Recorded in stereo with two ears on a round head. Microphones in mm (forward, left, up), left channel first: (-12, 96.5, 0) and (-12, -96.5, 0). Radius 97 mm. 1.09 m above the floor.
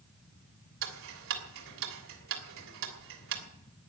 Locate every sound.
0.8 s ticking: 70° right (ahead or behind), 3 m